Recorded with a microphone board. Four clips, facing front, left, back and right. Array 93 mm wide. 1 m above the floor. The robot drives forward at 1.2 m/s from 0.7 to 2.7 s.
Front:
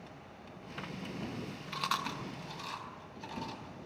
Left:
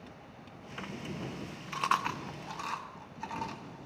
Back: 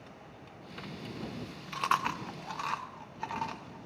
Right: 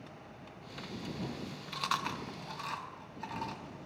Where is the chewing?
100° left, 0.6 m; by 3.9 s 170° left, 1.4 m.